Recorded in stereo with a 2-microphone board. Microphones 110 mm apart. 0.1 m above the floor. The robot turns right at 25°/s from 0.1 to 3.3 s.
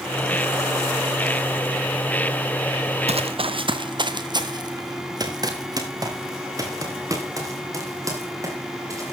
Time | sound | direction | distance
3.1 | running footsteps | 70° right (ahead or behind) | 0.8 m